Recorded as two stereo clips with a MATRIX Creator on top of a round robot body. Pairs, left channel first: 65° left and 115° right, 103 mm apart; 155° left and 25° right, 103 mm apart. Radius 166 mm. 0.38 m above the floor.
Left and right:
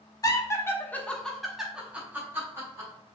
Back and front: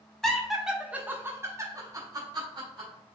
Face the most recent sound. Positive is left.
turn(degrees=-55)